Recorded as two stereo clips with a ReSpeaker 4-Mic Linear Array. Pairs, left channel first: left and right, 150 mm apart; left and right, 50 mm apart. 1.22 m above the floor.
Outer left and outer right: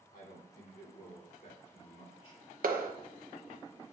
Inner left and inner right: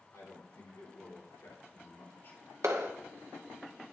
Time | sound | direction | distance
0.1 | a man speaking | 80° left | 3.5 m
2.6 | a clap | 75° right (ahead or behind) | 0.9 m